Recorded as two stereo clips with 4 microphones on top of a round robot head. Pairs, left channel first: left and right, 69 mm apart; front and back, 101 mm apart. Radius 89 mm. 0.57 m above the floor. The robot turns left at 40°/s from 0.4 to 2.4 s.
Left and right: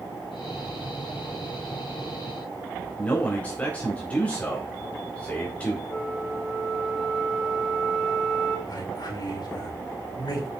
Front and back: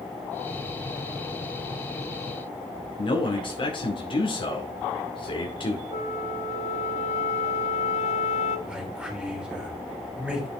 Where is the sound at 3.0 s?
20° left, 2 m.